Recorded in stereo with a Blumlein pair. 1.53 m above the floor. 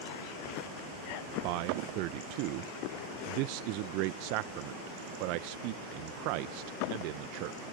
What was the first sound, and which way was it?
A man speaking, 45° right.